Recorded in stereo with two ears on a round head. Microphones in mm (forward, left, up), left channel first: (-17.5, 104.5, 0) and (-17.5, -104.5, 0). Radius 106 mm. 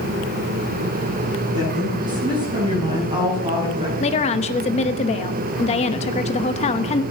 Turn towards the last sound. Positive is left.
turn(degrees=25)  # may be behind; listen again after turning